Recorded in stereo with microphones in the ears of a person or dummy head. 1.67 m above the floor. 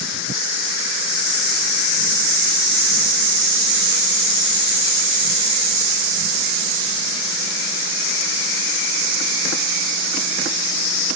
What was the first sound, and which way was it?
Only background noise.